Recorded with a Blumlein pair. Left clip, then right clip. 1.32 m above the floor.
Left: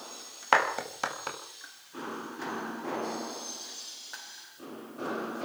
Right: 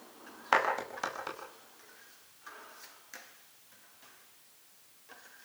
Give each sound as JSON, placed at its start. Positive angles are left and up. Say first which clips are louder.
{"t": 0.5, "sound": "a clap", "louder": "left 3 dB", "azimuth_deg": 15, "distance_m": 5.0}